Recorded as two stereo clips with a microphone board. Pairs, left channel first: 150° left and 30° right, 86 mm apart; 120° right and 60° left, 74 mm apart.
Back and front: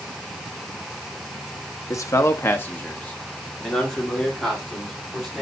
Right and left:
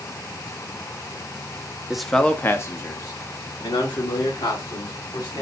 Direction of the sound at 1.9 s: 140° left.